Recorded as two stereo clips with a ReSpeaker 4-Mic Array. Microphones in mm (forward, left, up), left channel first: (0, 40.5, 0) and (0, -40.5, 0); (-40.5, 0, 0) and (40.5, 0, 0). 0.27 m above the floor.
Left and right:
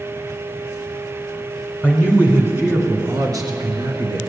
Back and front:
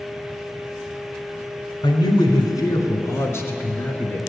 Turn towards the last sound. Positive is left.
turn(degrees=-105)